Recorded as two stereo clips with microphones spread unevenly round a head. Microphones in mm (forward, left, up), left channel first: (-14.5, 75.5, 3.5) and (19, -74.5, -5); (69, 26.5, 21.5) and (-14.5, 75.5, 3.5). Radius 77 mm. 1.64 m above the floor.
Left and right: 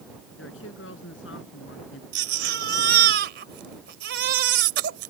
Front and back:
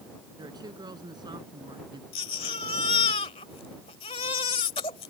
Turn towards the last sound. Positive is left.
turn(degrees=-65)